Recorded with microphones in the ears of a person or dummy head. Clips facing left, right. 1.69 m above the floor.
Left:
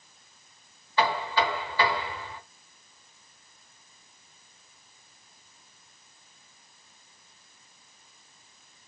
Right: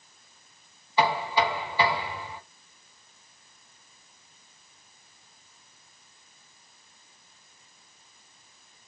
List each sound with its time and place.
1.0 s knocking: 10° right (ahead or behind), 1.0 m